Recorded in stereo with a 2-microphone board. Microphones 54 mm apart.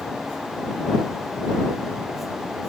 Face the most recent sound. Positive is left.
No sound to turn to.